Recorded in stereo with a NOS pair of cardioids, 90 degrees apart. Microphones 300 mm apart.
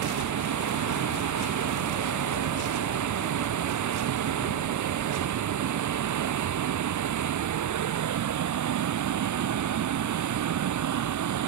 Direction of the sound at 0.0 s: 65° right.